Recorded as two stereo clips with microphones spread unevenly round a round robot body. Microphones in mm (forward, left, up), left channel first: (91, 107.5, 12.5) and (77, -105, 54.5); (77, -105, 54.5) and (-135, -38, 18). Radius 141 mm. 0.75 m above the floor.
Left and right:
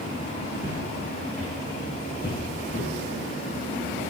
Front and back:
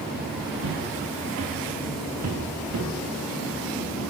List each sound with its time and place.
0.6 s footsteps: 175° right, 6 m; by 2.9 s 150° left, 5.5 m